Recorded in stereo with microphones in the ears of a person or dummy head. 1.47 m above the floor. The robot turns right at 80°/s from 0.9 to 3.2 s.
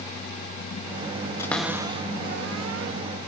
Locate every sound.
1.4 s a cupboard door: 15° left (ahead or behind), 1.0 m; by 2.9 s 65° right (ahead or behind), 1.0 m